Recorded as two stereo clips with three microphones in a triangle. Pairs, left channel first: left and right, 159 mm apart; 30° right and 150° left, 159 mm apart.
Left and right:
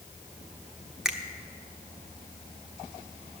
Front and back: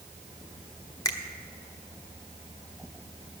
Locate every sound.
1.1 s a finger snap: 5° right, 1.0 m